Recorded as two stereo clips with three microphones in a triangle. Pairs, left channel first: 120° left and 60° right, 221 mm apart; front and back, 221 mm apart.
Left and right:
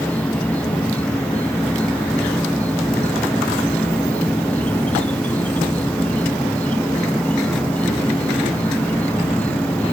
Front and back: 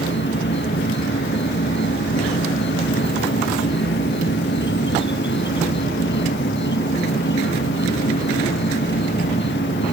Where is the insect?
35° left.